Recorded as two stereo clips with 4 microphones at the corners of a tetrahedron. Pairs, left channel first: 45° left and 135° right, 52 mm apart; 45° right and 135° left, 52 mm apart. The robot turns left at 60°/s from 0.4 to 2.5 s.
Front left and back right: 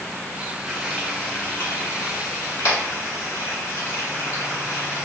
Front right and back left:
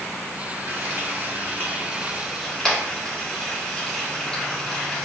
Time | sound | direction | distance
0.7 | frying | 140° left | 1.8 m